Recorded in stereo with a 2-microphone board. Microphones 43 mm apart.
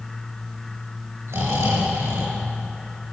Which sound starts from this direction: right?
Snoring, at 1.3 s.